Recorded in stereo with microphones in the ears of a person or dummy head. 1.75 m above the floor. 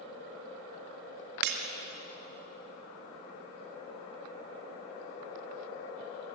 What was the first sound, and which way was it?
Breaking glass, 55° right (ahead or behind).